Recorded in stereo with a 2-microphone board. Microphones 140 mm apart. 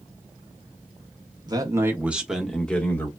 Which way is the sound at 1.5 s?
30° right (ahead or behind).